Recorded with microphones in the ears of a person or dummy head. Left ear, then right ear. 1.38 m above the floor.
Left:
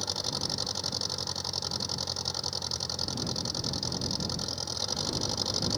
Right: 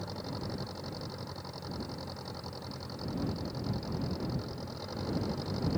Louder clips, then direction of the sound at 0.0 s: Left 9 dB; 70° left (ahead or behind).